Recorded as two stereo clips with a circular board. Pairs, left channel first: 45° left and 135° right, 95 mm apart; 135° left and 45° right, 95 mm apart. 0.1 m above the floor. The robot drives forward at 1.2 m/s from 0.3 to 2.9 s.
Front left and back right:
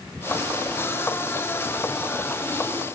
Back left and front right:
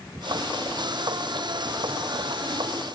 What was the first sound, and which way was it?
Only background noise.